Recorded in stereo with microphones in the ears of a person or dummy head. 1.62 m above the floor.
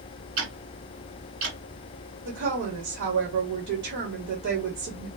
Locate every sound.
0.4 s ticking: 50° right (ahead or behind), 2.5 m
2.2 s a woman speaking: 80° right, 1.0 m